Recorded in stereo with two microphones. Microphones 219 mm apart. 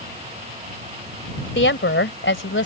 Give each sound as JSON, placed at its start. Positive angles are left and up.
{"t": 1.6, "sound": "a woman speaking", "side_deg": 60}